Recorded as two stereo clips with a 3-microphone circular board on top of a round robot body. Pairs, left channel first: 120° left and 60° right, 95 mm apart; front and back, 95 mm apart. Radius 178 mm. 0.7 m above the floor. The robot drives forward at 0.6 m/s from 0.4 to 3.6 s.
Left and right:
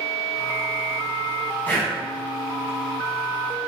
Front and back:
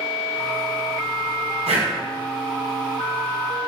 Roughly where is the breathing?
Behind.